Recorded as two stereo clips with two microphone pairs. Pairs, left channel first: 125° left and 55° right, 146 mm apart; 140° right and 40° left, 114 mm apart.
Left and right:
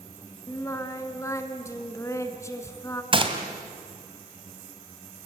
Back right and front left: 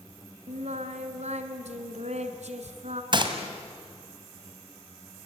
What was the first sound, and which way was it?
Singing, 55° left.